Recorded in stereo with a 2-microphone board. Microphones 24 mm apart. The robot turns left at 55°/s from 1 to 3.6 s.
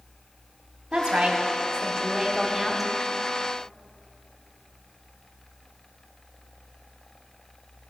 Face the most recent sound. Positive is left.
turn(degrees=145)